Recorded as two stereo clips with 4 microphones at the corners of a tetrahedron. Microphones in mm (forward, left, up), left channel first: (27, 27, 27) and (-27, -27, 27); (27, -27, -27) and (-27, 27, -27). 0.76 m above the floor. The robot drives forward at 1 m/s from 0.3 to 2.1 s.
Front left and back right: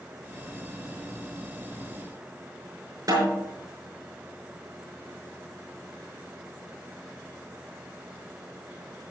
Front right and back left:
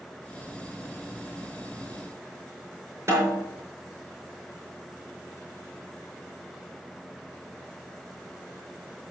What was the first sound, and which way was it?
A snare drum, straight behind.